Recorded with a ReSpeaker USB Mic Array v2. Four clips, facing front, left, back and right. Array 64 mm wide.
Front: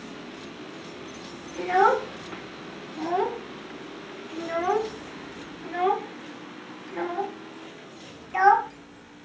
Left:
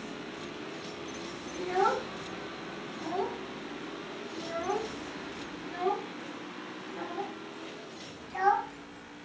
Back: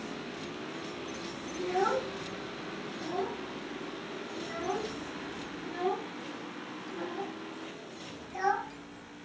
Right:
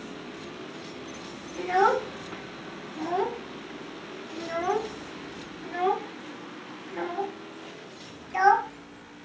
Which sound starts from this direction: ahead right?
A child speaking, at 1.6 s.